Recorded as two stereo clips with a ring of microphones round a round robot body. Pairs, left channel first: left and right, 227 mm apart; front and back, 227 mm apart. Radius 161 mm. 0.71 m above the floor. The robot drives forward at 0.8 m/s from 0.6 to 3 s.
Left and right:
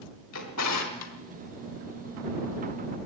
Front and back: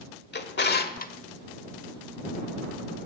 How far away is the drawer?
About 1.5 m.